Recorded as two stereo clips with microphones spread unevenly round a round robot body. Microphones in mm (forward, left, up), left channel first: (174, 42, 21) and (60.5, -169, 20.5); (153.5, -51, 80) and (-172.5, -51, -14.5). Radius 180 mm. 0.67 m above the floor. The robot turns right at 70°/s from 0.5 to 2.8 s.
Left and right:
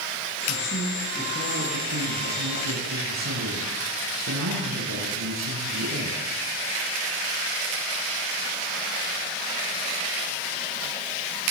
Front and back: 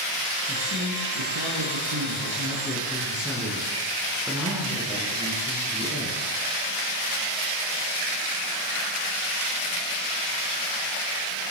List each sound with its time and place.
0.5 s a woman speaking: 105° left, 8.5 m; by 6.2 s 95° right, 8.5 m